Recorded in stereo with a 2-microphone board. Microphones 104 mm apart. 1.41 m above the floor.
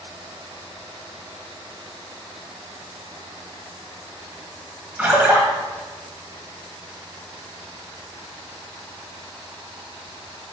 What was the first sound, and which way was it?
A splash, 15° right (ahead or behind).